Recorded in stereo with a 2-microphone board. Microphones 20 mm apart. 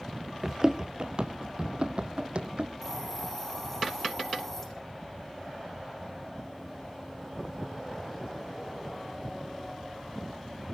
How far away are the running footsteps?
About 0.6 m.